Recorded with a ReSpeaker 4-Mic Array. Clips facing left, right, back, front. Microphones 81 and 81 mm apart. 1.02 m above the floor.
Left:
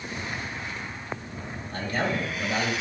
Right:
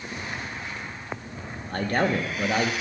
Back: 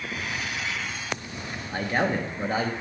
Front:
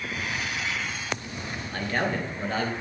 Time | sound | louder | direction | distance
1.7 | a man speaking | right 4 dB, back 3 dB | 110° right | 0.6 m